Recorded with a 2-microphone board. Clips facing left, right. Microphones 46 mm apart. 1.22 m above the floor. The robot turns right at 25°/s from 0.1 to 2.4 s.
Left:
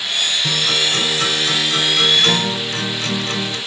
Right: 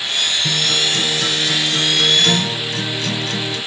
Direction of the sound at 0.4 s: 70° left.